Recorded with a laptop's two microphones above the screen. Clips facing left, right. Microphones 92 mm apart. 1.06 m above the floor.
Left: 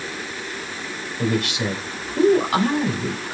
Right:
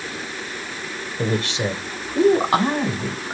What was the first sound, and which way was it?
A man speaking, 35° right (ahead or behind).